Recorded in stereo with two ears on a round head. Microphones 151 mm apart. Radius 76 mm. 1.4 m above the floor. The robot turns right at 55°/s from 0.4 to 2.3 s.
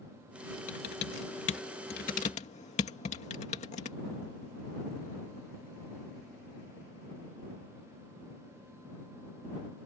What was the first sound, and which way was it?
Typing on a keyboard, 50° left (ahead or behind).